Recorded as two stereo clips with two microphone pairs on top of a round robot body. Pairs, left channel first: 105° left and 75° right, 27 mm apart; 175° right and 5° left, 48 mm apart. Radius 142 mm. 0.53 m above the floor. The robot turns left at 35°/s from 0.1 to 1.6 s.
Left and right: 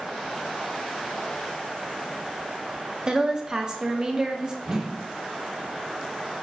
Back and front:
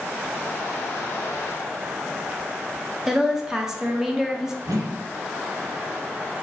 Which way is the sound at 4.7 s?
10° right.